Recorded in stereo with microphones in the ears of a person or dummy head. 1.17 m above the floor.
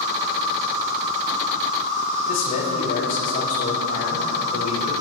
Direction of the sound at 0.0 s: 35° right (ahead or behind).